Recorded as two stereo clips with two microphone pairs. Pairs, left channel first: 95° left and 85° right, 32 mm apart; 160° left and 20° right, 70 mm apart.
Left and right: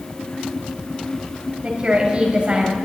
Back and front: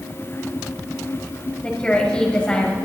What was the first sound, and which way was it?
A woman speaking, 130° right.